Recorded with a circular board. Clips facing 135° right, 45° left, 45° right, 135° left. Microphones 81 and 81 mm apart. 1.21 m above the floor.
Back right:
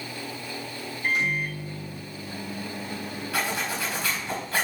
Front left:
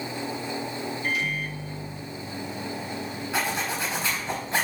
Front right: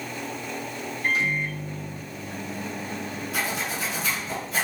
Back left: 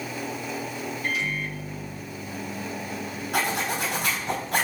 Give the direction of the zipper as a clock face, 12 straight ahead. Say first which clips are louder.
Front left 1 dB, back left 4 dB; 8 o'clock.